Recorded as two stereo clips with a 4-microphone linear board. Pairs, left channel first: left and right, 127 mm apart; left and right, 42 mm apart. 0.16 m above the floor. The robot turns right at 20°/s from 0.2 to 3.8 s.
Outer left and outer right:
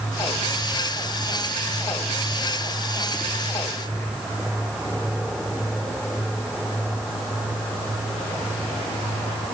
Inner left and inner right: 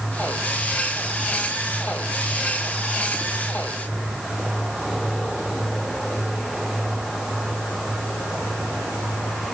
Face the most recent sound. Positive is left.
No sound to turn to.